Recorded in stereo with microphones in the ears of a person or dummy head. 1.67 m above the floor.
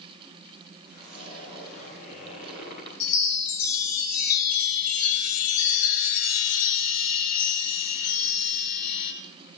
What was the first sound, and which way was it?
A zipper, 40° left (ahead or behind).